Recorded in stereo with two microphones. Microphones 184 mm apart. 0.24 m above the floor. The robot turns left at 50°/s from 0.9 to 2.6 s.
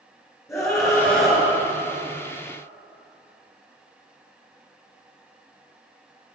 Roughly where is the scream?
Centre.